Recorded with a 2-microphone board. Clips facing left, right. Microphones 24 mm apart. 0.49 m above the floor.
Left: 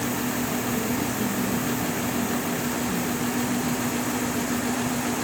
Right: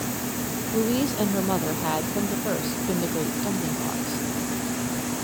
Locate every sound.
0.7 s a woman speaking: 80° right